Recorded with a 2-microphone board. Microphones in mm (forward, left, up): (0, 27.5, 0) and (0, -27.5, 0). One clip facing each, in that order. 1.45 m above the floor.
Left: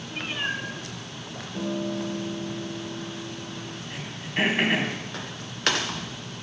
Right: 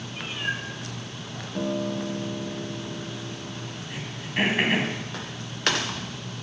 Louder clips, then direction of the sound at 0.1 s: Left 1 dB; 45° left (ahead or behind).